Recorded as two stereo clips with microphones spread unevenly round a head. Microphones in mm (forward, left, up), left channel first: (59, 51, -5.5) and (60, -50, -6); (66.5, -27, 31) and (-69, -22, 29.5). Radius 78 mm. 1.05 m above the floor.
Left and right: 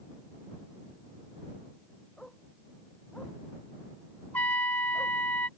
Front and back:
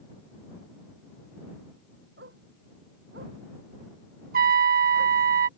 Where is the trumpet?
170° left.